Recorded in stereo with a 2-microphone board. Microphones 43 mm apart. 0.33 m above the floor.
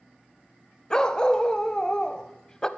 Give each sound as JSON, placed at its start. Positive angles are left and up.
{"t": 0.9, "sound": "a dog barking", "side_deg": 20, "distance_m": 0.6}